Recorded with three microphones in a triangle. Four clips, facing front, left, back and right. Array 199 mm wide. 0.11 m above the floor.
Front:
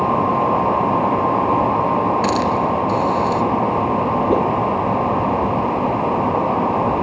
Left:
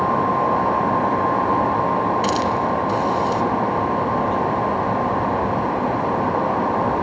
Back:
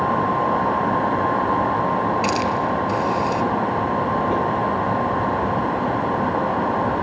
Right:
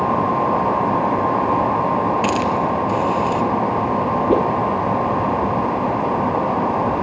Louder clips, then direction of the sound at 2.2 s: Right 1 dB, front 3 dB; 50° right.